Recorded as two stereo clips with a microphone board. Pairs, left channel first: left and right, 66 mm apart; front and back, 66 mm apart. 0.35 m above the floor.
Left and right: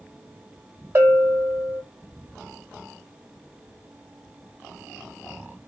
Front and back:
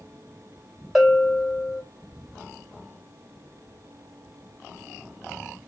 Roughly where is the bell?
Right.